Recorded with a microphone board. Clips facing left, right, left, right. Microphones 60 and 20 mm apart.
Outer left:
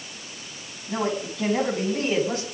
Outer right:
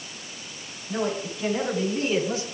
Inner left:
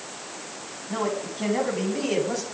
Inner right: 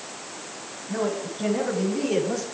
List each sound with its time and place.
0.9 s a man speaking: 60° left (ahead or behind), 10 m; by 2.5 s 55° left (ahead or behind), 9 m